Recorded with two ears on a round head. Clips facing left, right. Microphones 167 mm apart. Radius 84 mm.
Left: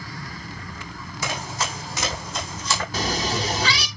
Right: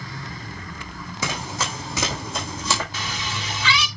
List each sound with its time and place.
1.2 s running footsteps: 70° right (ahead or behind), 4.5 m; by 2.8 s 75° right (ahead or behind), 5 m
2.9 s a cat meowing: 35° left (ahead or behind), 0.8 m